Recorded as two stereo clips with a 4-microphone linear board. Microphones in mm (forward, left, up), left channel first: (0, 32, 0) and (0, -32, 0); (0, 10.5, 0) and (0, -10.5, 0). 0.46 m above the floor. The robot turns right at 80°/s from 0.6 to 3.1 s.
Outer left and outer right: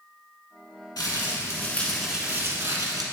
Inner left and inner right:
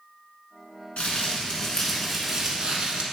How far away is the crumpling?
About 1.2 m.